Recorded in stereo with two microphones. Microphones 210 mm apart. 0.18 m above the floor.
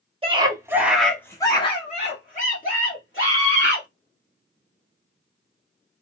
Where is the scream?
25° right (ahead or behind), 1.1 m; by 3.9 s 50° left (ahead or behind), 2.5 m.